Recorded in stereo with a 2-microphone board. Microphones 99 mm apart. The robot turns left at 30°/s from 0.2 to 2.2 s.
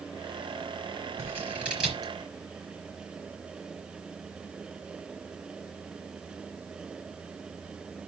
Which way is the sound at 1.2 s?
20° right (ahead or behind).